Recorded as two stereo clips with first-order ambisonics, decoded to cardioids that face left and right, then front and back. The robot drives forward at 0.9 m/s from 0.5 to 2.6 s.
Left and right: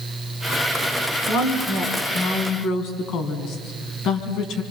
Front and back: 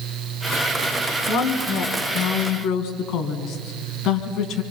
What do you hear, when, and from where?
1.3 s a woman speaking: 40° left, 5 m; by 4.6 s 50° left, 4 m